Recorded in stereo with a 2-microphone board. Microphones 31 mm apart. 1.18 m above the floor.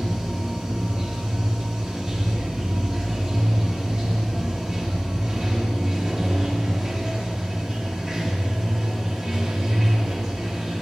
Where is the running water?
20° right (ahead or behind), 2 m.